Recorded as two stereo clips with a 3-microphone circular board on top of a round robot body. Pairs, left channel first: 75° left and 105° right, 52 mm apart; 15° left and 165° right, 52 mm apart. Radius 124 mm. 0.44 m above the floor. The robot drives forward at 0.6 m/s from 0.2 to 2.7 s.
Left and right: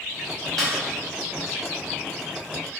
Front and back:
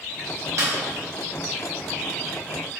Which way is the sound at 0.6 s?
165° left.